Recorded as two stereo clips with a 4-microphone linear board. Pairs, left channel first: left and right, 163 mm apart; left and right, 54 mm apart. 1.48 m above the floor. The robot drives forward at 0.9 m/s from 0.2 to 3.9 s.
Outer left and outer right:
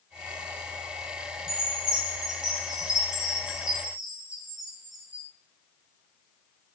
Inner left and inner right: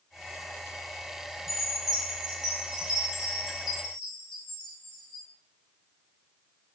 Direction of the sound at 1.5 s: 5° right (ahead or behind).